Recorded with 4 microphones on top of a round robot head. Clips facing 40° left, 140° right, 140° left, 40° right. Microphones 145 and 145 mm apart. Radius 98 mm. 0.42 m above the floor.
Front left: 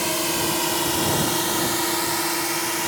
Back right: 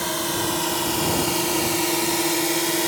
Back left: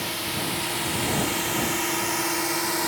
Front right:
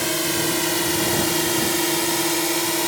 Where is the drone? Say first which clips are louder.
Front left 1 dB, front right 7 dB; 35° right; by 2.9 s 100° right.